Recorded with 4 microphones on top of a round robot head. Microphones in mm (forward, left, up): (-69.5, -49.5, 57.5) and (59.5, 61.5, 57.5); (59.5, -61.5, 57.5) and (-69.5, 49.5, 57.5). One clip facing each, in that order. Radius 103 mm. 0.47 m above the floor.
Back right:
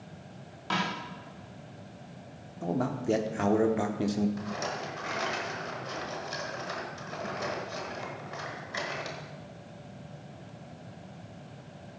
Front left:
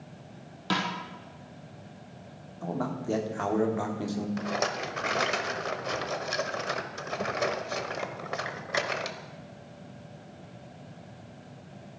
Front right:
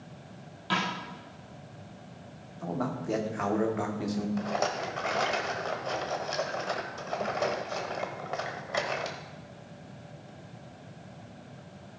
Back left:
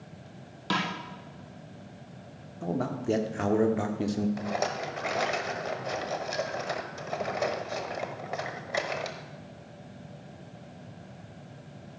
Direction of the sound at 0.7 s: 95° left.